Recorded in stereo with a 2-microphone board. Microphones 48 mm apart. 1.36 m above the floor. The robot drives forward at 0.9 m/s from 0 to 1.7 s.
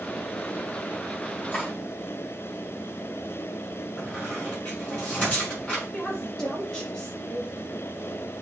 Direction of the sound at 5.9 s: 15° left (ahead or behind).